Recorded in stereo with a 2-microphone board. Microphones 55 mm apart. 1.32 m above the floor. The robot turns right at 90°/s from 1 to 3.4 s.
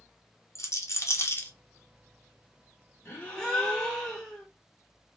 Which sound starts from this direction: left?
A rattle, at 0.6 s.